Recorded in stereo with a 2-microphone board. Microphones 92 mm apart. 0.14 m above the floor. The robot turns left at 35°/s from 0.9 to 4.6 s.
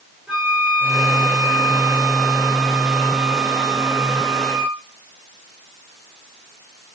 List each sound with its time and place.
0.3 s a flute: 5° right, 6.5 m; by 4.8 s 135° right, 6.5 m